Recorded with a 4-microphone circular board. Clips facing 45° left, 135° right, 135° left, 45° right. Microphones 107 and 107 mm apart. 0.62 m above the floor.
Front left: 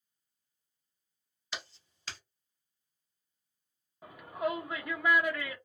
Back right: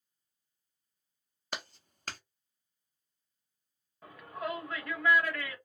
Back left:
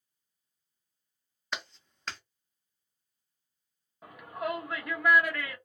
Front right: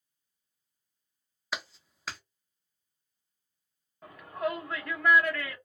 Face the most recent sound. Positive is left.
turn(degrees=75)